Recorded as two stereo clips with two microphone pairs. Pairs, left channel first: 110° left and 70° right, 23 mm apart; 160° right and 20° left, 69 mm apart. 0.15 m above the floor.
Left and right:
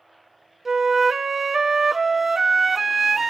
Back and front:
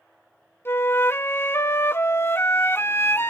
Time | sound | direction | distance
0.7 | a flute | 150° right | 0.6 m